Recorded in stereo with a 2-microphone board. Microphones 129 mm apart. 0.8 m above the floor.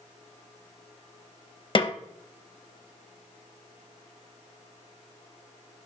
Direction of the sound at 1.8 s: 40° left (ahead or behind).